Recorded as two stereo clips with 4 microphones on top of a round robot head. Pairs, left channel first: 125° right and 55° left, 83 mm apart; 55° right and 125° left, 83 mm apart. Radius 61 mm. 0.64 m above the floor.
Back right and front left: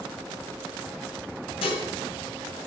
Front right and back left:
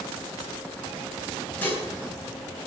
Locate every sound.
1.6 s dishes clattering: 130° right, 3.5 m